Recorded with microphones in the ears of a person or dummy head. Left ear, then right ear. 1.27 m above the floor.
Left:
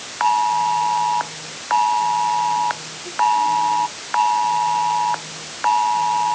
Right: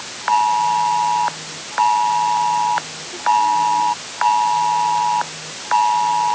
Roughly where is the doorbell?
I don't hear a doorbell.